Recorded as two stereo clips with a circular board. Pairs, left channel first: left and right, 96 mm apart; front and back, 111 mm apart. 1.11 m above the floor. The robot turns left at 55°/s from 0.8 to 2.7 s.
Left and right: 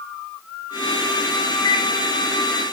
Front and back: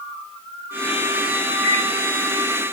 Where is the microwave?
65° left, 5 m; by 1.9 s 55° left, 5 m.